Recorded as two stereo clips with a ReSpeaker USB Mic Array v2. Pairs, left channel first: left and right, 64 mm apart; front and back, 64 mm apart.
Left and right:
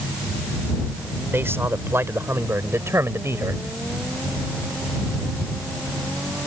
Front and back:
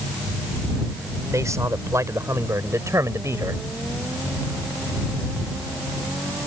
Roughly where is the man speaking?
Behind right.